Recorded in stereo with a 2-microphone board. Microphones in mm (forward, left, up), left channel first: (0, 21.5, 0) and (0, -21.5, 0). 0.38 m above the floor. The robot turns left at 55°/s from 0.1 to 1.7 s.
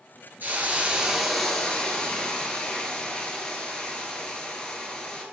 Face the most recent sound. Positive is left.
turn(degrees=155)